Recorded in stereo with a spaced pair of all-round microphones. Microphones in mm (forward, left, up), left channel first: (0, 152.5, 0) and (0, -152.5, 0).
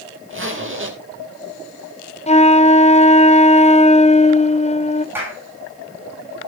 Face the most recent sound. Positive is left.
turn(degrees=-5)  # may be behind; listen again after turning